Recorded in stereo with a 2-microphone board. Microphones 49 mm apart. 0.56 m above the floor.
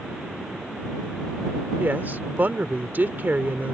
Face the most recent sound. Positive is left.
turn(degrees=-40)  # may be behind; listen again after turning